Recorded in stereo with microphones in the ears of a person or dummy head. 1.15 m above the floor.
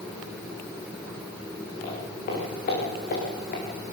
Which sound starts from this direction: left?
Footsteps, at 1.8 s.